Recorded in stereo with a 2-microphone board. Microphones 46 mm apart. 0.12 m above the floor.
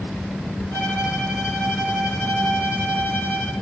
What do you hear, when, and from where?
0.7 s a violin: 75° left (ahead or behind), 3.5 m